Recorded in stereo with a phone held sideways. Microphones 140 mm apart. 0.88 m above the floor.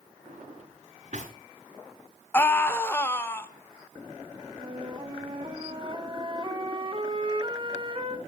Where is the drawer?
65° right (ahead or behind), 3.5 m.